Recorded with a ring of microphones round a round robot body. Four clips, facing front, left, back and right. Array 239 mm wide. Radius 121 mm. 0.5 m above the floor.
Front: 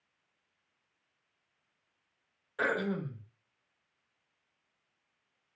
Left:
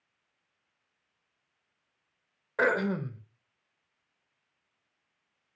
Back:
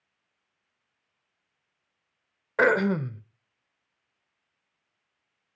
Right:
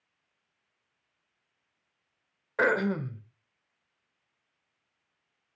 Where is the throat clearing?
Straight behind, 1.0 m.